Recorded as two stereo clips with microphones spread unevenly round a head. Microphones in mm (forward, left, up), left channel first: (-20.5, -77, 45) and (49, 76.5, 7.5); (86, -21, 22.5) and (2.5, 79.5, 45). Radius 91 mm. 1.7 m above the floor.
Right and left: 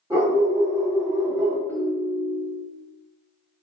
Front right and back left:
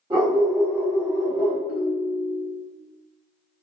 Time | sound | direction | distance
0.1 | a dog barking | 145° left | 1.5 m
1.7 | a ringtone | 45° right | 0.8 m